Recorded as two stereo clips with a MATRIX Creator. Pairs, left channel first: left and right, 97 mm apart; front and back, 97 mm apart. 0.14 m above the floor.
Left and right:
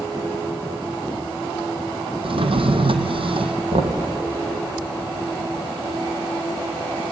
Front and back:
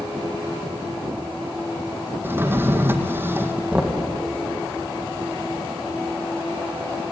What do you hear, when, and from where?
2.2 s a drawer: 110° right, 1.6 m
3.7 s knocking: 95° right, 3.5 m